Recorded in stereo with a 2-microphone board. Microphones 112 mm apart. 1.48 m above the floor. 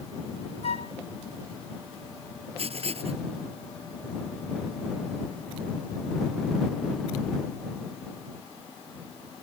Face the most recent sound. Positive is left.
turn(degrees=-65)  # may be behind; listen again after turning